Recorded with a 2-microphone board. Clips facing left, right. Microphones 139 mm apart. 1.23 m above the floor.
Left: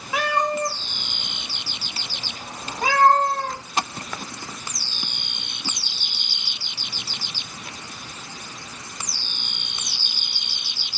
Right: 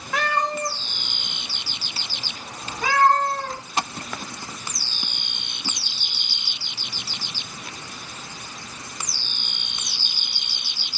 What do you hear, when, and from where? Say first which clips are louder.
0.1 s a cat meowing: left 2 dB; 5° left (ahead or behind), 1.0 m; by 3.6 s 55° left (ahead or behind), 2.5 m